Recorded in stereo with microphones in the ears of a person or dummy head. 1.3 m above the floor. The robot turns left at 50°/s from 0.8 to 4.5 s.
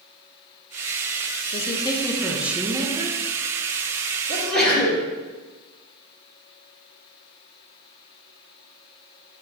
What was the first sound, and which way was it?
A woman speaking, 45° left.